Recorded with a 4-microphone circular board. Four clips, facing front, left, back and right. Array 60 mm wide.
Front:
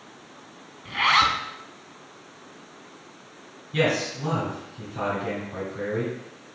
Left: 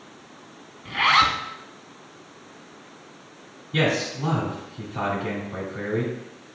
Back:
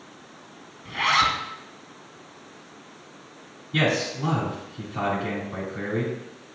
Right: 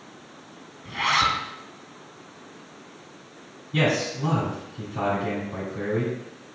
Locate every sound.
0.8 s a zipper: 65° left, 0.5 m
3.7 s a man speaking: 130° left, 1.5 m